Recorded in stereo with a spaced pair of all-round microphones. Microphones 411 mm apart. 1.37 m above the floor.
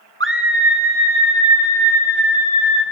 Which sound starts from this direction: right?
A scream, at 0.2 s.